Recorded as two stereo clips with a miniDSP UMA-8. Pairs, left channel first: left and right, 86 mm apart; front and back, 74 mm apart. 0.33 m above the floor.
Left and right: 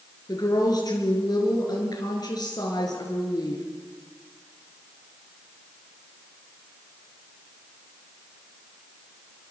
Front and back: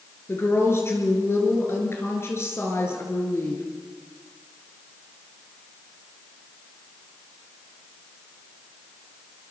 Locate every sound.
0.3 s a woman speaking: 55° left, 5 m